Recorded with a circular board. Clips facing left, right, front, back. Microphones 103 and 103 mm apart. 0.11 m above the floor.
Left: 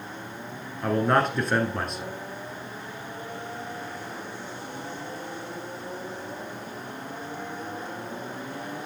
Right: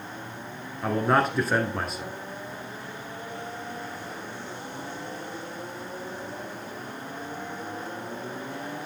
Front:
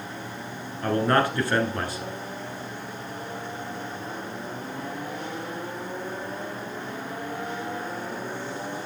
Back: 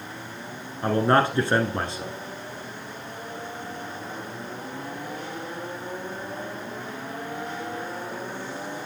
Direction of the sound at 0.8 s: 175° right.